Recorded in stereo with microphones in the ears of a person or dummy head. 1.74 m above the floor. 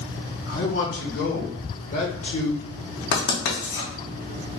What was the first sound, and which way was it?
A man speaking, 75° left (ahead or behind).